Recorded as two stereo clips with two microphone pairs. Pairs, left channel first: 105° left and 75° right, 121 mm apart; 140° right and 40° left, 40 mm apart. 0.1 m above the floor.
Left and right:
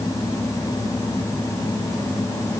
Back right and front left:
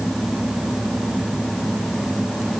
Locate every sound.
Only background noise.